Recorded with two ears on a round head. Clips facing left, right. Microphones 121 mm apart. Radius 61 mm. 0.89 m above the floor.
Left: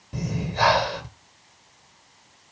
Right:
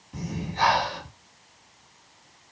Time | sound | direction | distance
0.1 | breathing | 55° left (ahead or behind) | 1.4 m